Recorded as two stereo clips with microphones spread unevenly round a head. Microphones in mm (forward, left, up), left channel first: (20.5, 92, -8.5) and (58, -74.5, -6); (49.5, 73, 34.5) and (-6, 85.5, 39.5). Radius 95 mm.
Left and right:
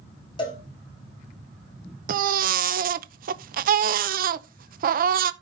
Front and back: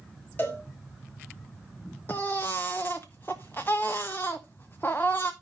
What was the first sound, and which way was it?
A cowbell, 40° left.